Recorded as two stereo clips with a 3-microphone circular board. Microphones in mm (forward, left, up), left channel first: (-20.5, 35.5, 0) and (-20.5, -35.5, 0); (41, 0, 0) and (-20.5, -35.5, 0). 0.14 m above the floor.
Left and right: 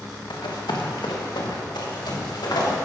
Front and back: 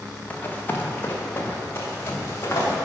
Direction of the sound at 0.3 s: 95° left.